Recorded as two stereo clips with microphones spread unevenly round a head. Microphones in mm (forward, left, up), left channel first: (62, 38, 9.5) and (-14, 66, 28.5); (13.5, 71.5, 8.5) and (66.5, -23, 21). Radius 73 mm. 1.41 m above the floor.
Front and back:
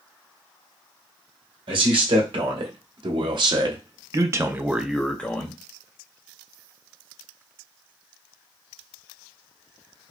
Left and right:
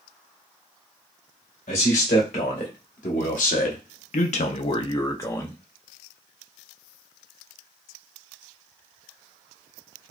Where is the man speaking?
155° left, 1.6 m; by 5.6 s 40° left, 0.7 m.